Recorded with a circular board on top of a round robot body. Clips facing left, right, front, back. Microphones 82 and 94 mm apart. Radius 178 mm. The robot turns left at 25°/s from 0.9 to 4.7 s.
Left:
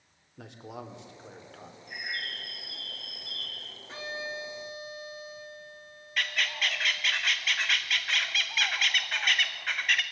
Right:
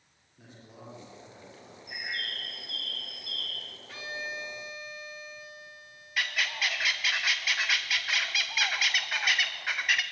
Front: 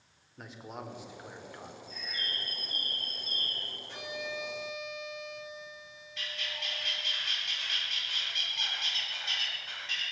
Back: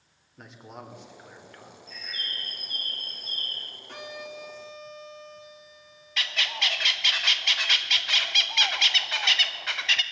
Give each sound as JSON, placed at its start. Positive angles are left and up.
{"t": 0.4, "sound": "a man speaking", "azimuth_deg": 90, "distance_m": 3.5}
{"t": 1.9, "sound": "a bird", "azimuth_deg": -170, "distance_m": 4.5}
{"t": 3.9, "sound": "a violin", "azimuth_deg": 150, "distance_m": 3.0}
{"t": 6.2, "sound": "a bird", "azimuth_deg": -175, "distance_m": 0.5}